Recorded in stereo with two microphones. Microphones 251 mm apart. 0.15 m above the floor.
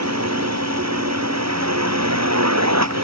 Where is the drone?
75° right (ahead or behind).